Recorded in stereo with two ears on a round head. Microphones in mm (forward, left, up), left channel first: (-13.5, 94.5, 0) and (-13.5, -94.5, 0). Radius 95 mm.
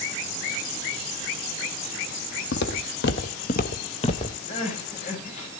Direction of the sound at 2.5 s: 55° left (ahead or behind).